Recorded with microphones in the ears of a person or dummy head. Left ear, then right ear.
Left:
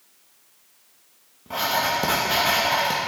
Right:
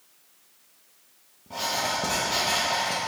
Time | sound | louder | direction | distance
1.5 | writing | left 5 dB | 50° left (ahead or behind) | 1.1 m